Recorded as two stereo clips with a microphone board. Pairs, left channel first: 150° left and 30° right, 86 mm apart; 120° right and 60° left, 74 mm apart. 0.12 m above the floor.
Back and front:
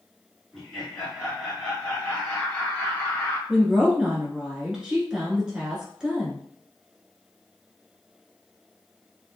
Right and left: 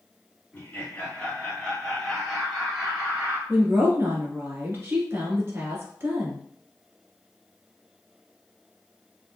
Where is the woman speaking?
45° left, 1.3 m.